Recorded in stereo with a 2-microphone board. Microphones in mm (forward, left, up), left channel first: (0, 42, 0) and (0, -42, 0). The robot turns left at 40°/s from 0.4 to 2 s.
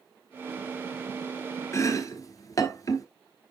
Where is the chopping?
35° left (ahead or behind), 1.0 m; by 3.0 s 40° left (ahead or behind), 1.0 m.